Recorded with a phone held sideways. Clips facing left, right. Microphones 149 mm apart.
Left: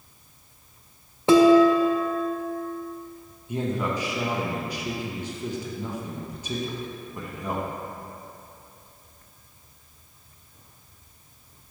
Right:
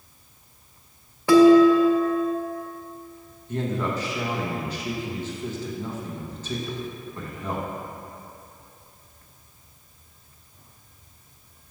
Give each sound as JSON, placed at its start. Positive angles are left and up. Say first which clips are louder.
{"t": 1.3, "sound": "dishes clattering", "louder": "right 2 dB", "side_deg": 25, "distance_m": 0.5}
{"t": 3.5, "sound": "a man speaking", "louder": "even", "side_deg": 10, "distance_m": 1.0}